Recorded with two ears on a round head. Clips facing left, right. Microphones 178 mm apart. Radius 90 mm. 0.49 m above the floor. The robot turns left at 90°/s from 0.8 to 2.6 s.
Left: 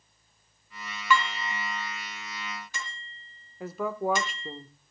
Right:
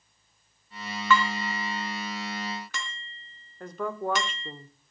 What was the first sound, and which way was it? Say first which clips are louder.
Dishes clattering: right 2 dB; 10° left (ahead or behind).